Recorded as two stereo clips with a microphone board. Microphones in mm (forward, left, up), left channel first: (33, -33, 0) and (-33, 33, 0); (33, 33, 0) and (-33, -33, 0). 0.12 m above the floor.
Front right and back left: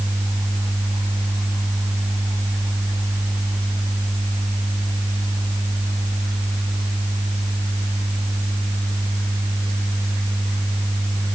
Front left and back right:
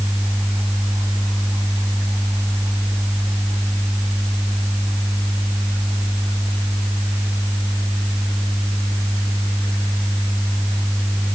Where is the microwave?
No microwave in this recording.